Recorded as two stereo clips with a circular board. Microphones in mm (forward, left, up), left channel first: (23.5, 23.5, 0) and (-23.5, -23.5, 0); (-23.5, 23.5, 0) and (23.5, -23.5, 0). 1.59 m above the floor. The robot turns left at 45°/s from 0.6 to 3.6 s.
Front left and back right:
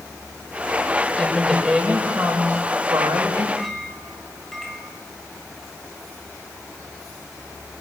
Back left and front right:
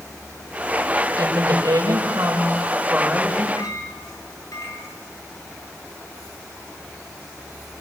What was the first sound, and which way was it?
A woman speaking, 35° right.